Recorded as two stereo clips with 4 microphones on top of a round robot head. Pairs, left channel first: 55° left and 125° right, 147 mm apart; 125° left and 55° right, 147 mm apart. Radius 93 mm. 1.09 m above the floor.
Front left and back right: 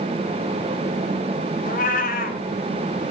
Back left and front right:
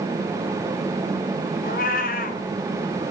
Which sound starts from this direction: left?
A cat meowing, at 1.6 s.